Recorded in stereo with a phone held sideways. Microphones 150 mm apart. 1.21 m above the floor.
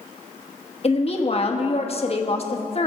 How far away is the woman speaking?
About 1.3 m.